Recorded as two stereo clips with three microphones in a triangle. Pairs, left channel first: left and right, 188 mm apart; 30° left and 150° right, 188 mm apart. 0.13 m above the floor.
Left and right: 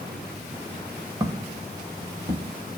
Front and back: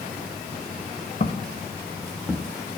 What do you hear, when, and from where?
1.2 s footsteps: 20° right, 0.7 m; by 2.5 s 75° right, 1.2 m